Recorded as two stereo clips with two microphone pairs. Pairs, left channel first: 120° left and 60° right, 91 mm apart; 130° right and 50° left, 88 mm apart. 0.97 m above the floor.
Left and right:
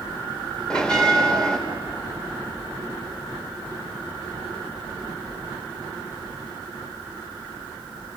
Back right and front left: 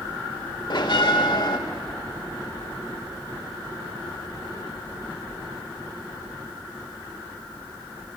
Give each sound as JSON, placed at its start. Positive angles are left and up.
{"t": 0.7, "sound": "a bell", "azimuth_deg": -160, "distance_m": 2.0}